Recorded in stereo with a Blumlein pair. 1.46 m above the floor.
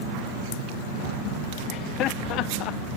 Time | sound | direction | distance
1.7 | laughter | 35° left | ?